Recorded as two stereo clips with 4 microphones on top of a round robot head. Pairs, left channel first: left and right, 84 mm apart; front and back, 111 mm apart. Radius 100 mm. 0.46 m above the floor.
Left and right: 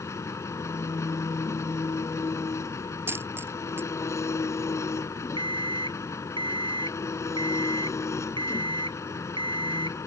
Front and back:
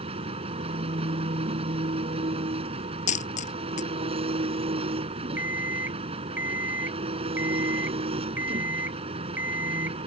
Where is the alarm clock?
105° right.